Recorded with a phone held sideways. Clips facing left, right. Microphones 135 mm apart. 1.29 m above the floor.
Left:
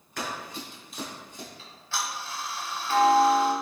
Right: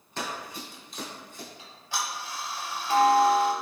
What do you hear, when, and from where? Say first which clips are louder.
0.2 s running footsteps: even; 25° right (ahead or behind), 1.3 m; by 1.5 s 25° left (ahead or behind), 1.4 m
1.6 s ticking: even; 15° right (ahead or behind), 0.7 m